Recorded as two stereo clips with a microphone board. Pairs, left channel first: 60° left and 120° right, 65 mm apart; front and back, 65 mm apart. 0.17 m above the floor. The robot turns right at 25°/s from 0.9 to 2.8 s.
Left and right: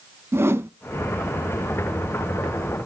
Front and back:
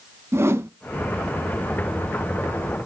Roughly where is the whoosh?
Behind right.